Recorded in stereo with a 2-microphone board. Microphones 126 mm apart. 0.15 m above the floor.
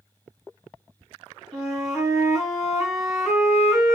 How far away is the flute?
About 1.4 m.